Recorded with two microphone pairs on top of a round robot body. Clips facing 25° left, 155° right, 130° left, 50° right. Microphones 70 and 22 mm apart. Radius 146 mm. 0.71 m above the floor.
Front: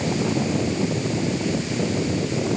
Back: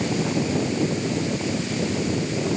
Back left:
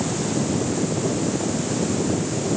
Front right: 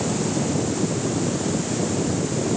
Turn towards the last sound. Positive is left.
No sound to turn to.